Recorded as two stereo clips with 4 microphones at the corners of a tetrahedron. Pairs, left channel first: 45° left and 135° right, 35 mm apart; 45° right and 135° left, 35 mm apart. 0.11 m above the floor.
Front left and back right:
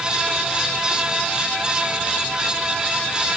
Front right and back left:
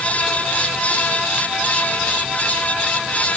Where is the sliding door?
I don't hear a sliding door.